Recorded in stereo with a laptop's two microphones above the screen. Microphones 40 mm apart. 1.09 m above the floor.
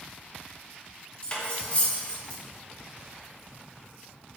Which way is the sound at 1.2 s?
30° left (ahead or behind).